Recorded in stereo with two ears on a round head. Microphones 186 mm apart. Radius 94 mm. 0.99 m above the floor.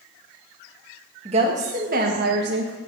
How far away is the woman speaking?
About 1.3 m.